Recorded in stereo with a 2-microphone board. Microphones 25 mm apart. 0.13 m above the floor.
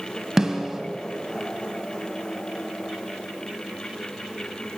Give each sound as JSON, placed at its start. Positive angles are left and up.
{"t": 0.4, "sound": "a snare drum", "side_deg": -15, "distance_m": 1.7}